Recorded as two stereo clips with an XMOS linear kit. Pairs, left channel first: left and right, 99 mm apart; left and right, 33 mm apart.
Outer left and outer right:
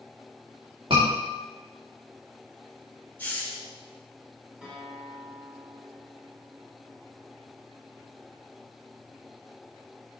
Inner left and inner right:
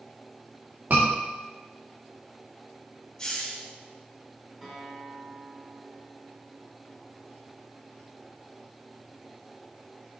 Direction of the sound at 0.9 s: 65° right (ahead or behind).